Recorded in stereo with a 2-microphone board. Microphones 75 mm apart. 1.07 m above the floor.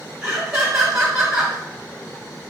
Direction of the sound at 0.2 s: 10° right (ahead or behind).